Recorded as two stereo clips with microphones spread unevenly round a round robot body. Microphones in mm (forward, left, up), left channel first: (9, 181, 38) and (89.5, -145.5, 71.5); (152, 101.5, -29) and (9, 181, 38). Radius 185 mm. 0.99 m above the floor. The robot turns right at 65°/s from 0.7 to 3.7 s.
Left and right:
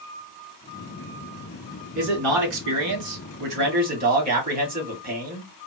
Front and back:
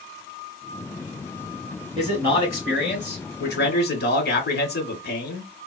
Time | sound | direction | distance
1.9 | a man speaking | 145° right | 2.0 m